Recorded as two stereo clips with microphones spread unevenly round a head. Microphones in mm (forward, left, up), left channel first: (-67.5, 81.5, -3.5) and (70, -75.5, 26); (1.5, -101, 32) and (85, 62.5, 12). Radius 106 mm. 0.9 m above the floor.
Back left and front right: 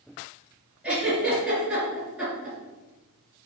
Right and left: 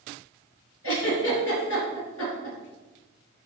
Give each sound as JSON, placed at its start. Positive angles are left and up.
{"t": 0.8, "sound": "a giggle", "azimuth_deg": -130, "distance_m": 3.5}